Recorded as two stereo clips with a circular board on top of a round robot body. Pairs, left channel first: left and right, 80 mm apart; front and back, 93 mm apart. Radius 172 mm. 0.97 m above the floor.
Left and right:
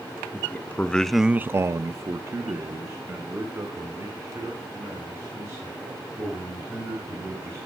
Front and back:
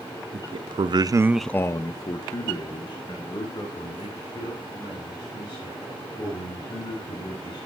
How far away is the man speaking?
About 0.9 m.